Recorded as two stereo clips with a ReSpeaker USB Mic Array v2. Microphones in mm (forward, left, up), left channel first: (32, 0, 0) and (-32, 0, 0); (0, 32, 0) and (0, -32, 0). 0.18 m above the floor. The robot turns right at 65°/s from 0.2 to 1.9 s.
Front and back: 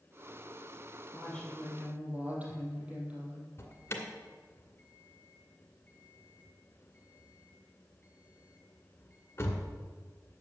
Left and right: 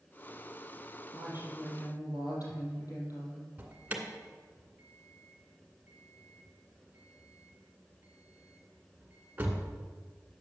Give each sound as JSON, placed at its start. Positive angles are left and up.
{"t": 1.1, "sound": "a woman speaking", "azimuth_deg": 60, "distance_m": 5.0}
{"t": 3.6, "sound": "an alarm", "azimuth_deg": -30, "distance_m": 2.0}